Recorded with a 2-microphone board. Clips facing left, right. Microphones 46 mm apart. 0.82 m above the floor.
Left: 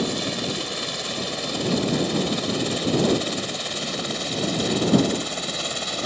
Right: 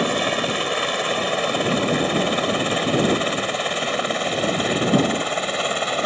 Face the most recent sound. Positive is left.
turn(degrees=-35)  # may be behind; listen again after turning